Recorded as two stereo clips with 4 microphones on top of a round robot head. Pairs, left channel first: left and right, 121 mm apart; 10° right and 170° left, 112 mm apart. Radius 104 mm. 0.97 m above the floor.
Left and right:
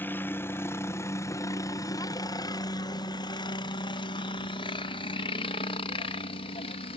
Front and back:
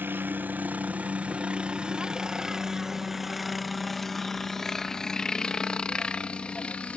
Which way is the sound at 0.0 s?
135° left.